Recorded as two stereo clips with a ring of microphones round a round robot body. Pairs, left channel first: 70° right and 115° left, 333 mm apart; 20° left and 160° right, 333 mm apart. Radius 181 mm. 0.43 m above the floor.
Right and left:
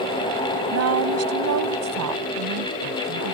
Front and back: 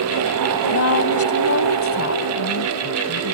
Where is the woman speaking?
70° left; by 3.4 s 75° left.